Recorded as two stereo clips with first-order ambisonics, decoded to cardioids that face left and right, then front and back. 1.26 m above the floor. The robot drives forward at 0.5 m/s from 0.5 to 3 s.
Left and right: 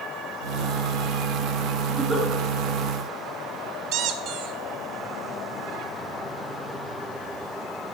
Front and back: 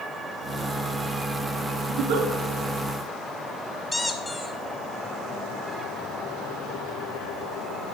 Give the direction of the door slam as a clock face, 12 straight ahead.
No door slam in this recording.